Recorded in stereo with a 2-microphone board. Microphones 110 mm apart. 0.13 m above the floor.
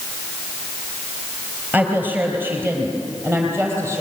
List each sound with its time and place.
1.7 s a woman speaking: 15° right (ahead or behind), 3 m; by 4.0 s 25° right (ahead or behind), 4.5 m